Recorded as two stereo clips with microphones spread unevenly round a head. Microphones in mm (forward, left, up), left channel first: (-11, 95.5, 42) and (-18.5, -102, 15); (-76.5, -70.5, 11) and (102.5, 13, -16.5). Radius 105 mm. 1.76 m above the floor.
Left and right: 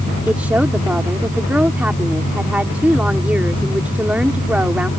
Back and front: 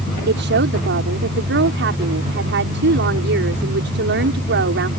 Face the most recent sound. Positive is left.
turn(degrees=-5)